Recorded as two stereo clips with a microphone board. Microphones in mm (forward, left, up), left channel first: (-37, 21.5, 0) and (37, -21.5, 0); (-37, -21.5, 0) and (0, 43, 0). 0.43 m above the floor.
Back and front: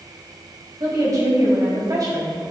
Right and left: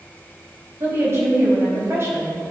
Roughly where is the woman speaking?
Ahead.